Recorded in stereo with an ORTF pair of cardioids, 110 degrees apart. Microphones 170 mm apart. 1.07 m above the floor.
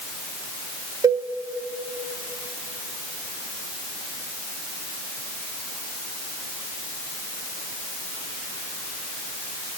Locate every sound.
1.0 s a cowbell: 20° right, 0.6 m